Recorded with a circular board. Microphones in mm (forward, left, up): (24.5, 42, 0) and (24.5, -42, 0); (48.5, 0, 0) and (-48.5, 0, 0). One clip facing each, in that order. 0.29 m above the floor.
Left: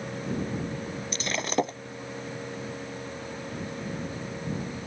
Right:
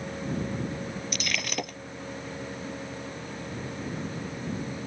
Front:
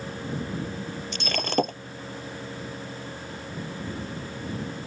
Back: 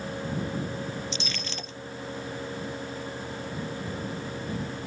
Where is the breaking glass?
30° left.